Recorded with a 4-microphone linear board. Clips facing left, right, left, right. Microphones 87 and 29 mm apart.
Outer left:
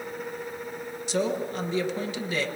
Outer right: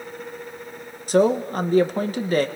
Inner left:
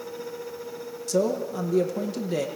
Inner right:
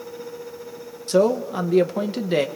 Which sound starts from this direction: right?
A man speaking, at 1.1 s.